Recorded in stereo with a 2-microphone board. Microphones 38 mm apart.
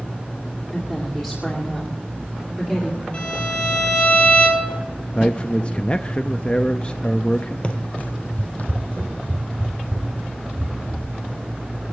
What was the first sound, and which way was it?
A woman speaking, 15° left (ahead or behind).